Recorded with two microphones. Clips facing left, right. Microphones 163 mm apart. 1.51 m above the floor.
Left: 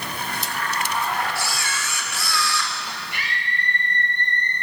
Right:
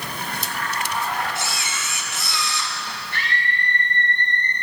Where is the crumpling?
No crumpling in this recording.